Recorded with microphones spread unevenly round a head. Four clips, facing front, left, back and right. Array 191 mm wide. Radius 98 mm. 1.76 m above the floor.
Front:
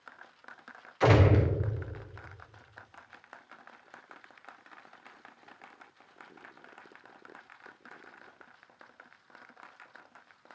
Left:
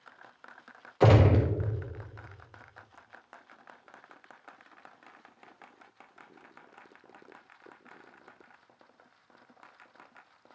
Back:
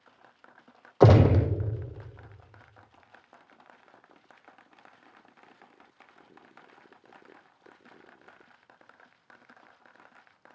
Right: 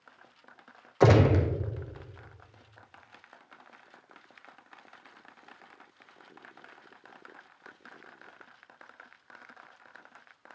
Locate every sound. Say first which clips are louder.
1.0 s a gunshot: right 1 dB, back 4 dB; 170° right, 0.6 m